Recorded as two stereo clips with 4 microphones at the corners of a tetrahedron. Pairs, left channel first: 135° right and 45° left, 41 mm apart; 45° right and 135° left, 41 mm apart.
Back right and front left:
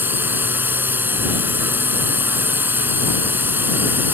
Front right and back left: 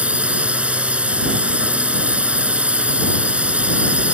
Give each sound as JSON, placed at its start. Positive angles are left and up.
{"t": 0.0, "sound": "a drone", "azimuth_deg": 80}